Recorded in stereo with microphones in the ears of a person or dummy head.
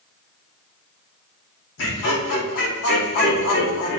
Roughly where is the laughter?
Left.